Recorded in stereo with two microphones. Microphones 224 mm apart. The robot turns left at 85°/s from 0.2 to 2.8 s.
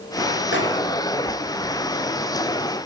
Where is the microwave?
55° left (ahead or behind), 2.5 m; by 0.7 s 65° left (ahead or behind), 2.5 m.